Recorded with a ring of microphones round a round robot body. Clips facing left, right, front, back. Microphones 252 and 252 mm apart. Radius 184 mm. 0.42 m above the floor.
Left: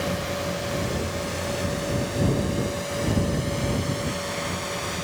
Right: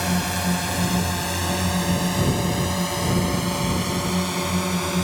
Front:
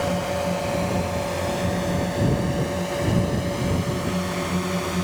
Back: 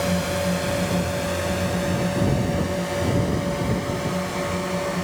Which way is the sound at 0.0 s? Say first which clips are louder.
Right 2 dB, back 1 dB; 110° right.